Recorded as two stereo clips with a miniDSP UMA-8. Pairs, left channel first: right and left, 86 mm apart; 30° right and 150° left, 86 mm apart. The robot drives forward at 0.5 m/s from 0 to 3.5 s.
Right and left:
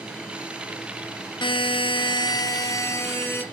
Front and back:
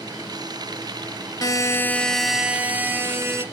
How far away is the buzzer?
About 0.5 m.